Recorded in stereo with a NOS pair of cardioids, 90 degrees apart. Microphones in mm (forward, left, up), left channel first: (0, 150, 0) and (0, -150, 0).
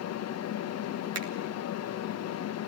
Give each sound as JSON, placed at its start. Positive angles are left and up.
{"t": 0.0, "sound": "a fan", "azimuth_deg": 60, "distance_m": 0.9}
{"t": 1.1, "sound": "a finger snap", "azimuth_deg": -55, "distance_m": 2.0}